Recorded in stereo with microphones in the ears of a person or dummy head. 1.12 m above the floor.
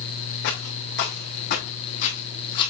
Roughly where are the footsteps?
Left.